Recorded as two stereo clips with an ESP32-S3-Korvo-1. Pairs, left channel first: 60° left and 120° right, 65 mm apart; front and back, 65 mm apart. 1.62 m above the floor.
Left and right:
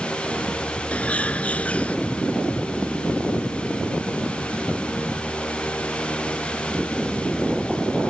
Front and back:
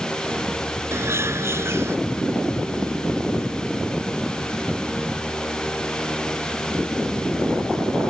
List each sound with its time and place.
0.9 s a bird: 130° left